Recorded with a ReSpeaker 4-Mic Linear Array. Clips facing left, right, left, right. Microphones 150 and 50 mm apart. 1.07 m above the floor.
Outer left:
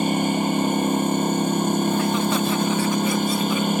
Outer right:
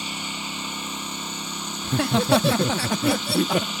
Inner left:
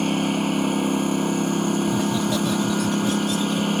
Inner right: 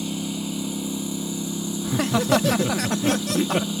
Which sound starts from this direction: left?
A lawn mower, at 0.0 s.